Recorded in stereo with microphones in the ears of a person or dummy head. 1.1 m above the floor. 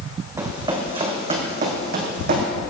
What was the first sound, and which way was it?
Running footsteps, 20° right (ahead or behind).